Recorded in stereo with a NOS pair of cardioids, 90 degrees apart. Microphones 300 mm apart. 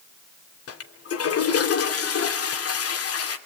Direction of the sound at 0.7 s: 60° left.